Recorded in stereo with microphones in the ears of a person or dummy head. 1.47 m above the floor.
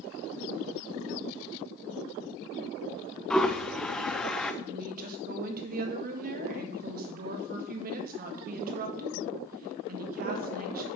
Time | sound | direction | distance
3.3 | a toilet flushing | 10° left (ahead or behind) | 0.5 m
4.6 | a woman speaking | 50° right (ahead or behind) | 1.6 m